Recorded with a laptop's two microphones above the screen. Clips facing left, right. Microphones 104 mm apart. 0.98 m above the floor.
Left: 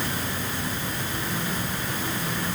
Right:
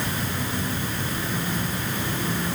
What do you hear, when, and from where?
Only background noise.